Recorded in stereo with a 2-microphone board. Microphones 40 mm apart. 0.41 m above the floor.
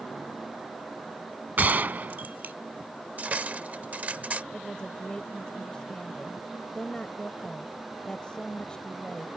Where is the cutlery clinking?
40° right (ahead or behind).